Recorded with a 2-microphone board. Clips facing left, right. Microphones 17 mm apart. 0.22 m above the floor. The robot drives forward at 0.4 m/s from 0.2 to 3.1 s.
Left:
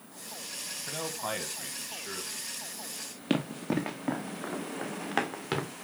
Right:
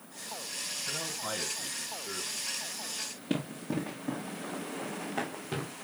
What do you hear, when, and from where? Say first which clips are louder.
0.9 s a man speaking: left 3 dB; 30° left (ahead or behind), 1.7 m
3.3 s running footsteps: left 4 dB; 50° left (ahead or behind), 1.8 m; by 5.7 s 80° left, 3 m